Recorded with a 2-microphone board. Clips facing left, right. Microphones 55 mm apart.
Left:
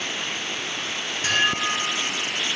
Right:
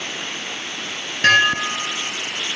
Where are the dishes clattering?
70° right (ahead or behind), 3 m.